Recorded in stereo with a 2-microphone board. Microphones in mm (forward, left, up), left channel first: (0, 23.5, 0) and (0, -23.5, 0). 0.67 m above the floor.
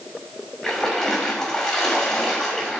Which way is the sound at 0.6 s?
15° left (ahead or behind).